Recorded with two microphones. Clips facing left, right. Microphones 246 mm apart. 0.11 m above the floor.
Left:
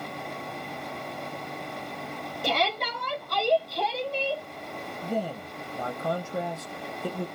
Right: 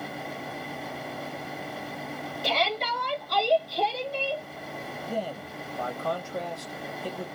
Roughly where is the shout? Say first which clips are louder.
Left 1 dB; left.